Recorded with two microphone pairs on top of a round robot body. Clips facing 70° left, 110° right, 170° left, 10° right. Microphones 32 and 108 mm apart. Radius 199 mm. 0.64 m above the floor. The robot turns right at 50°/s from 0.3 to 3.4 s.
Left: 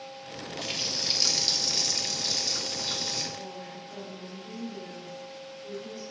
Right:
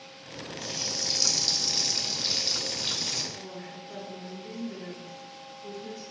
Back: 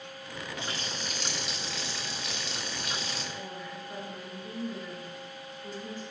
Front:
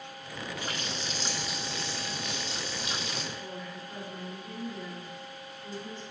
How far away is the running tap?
About 1.3 m.